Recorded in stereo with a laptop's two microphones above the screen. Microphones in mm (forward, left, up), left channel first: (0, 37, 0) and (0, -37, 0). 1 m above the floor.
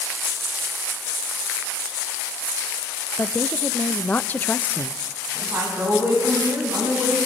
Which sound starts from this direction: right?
A woman speaking, at 5.3 s.